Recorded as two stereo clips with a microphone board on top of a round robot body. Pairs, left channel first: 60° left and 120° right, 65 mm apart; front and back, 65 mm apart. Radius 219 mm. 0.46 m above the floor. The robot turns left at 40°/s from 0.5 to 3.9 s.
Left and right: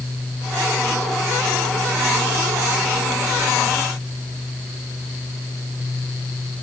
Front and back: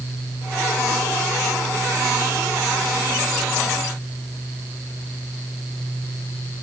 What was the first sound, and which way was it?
Only background noise.